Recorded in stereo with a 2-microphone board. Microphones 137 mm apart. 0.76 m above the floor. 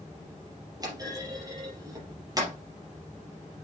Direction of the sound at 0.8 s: 25° right (ahead or behind).